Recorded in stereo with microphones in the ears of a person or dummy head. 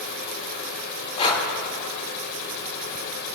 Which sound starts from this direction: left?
Breathing, at 1.2 s.